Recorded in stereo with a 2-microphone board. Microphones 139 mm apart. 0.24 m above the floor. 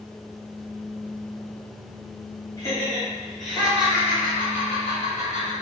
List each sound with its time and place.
2.6 s laughter: 20° left (ahead or behind), 1.5 m; by 5.5 s 40° right (ahead or behind), 1.9 m